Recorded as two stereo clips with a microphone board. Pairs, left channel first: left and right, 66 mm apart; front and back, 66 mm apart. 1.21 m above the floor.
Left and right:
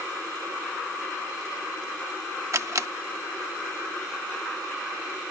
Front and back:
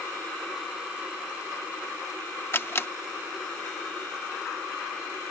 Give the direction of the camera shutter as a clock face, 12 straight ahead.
2 o'clock.